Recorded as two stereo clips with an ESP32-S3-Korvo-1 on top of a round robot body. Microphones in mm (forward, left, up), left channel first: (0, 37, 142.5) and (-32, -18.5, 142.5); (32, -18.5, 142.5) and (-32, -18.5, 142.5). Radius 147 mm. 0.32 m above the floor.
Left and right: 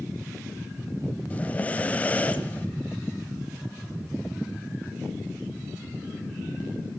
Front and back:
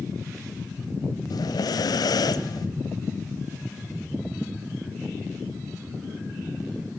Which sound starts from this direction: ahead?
Breathing, at 1.3 s.